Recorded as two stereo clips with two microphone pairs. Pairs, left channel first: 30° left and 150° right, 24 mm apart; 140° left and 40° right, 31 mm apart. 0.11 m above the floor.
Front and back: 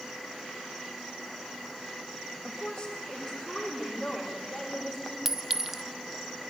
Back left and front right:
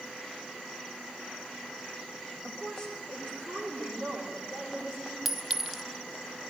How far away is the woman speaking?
About 5 m.